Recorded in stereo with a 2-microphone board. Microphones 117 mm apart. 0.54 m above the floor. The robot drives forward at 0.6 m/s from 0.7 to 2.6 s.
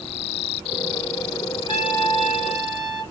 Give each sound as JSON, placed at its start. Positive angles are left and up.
{"t": 1.7, "sound": "a trumpet", "side_deg": -10, "distance_m": 1.9}